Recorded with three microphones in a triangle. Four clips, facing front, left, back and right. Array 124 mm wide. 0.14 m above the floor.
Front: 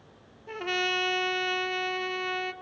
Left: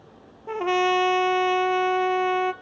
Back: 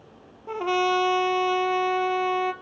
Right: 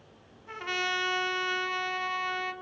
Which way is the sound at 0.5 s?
120° left.